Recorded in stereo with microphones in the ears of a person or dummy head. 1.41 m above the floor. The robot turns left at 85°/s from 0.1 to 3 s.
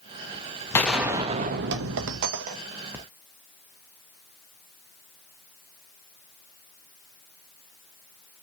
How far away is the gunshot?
About 0.7 m.